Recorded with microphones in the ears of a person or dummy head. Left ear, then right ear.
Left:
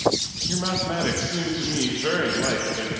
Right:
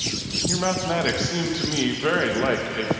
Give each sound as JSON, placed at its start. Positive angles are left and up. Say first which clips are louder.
{"t": 0.5, "sound": "a man speaking", "louder": "right 3 dB", "side_deg": -25, "distance_m": 1.7}